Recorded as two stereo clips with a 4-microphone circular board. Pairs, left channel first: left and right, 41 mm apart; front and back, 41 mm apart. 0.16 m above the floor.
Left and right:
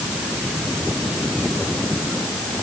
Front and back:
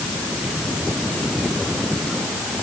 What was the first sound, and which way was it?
Only background noise.